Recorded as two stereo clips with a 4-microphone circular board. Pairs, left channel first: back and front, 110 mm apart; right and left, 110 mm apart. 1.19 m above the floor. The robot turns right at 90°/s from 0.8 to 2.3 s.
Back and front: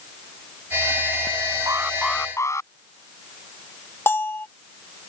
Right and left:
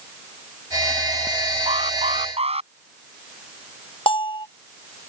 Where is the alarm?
60° left; by 2.7 s 115° left.